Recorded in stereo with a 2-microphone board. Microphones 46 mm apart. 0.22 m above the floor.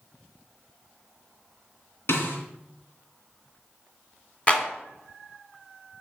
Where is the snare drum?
55° left (ahead or behind), 2.5 m.